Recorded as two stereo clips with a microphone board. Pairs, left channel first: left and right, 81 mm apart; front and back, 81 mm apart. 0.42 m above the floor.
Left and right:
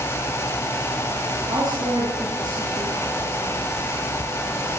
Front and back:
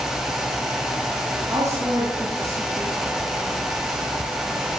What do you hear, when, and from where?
1.5 s a woman speaking: 125° right, 10 m